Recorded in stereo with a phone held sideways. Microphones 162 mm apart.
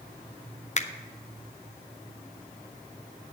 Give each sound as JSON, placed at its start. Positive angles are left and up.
{"t": 0.8, "sound": "a finger snap", "side_deg": 45, "distance_m": 0.6}